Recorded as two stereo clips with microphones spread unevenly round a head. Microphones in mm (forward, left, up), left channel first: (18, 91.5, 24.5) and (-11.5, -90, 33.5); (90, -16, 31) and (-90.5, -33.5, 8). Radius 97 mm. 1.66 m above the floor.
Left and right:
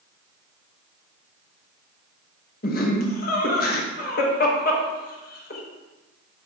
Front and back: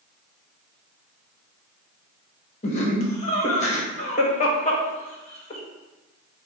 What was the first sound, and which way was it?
Laughter, 45° left.